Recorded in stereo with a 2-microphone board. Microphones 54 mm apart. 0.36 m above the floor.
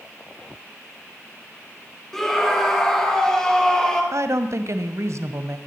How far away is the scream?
About 8 m.